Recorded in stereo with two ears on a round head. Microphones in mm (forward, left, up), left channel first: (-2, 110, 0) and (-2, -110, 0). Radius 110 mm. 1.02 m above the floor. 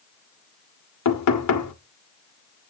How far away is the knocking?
About 2 m.